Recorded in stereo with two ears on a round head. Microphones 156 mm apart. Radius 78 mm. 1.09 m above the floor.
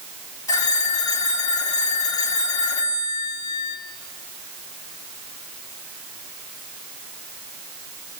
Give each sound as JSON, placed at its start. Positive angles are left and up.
{"t": 0.5, "sound": "a phone ringing", "side_deg": 20, "distance_m": 5.0}